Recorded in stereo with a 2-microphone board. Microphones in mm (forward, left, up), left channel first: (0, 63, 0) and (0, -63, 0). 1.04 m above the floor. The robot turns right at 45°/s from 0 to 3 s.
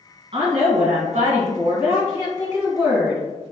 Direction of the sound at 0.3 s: 125° right.